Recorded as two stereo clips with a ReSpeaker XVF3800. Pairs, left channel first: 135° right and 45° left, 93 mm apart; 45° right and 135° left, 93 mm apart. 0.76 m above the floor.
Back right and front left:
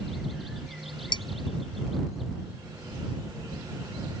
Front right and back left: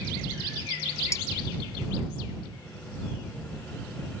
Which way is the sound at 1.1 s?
105° right.